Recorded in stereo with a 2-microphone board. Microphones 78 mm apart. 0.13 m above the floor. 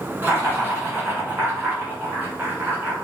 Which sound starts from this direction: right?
Laughter, at 0.2 s.